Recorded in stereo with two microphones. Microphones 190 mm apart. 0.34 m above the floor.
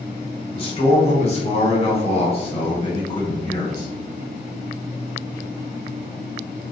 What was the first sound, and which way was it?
A man speaking, 30° left (ahead or behind).